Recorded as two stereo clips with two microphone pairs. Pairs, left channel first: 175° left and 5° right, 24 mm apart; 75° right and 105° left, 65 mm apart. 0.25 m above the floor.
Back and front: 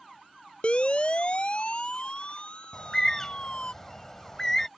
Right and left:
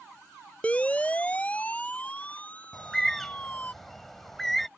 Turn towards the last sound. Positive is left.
turn(degrees=-155)